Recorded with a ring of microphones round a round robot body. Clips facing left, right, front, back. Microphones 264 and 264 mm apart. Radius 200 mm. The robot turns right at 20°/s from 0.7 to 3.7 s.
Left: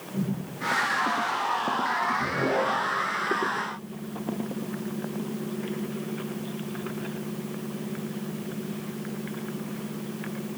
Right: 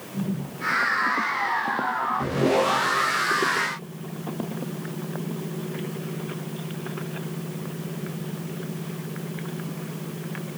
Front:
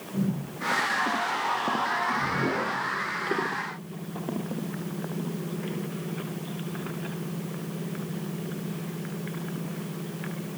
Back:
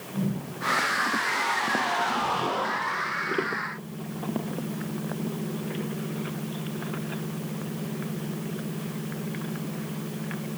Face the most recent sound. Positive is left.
No sound to turn to.